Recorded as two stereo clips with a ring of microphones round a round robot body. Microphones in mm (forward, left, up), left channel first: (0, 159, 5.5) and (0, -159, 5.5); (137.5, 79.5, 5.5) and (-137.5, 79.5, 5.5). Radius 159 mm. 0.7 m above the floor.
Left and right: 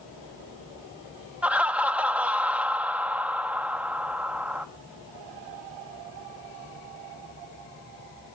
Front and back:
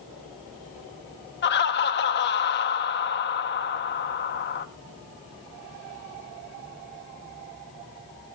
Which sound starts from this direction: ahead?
Laughter, at 1.4 s.